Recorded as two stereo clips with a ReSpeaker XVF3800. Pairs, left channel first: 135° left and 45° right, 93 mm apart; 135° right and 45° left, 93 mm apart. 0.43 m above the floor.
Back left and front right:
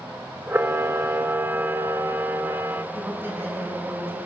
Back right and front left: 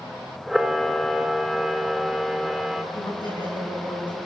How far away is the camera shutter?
About 0.8 m.